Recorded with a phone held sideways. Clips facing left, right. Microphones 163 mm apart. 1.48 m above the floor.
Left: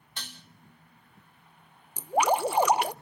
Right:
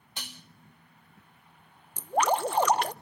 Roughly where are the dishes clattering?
Centre.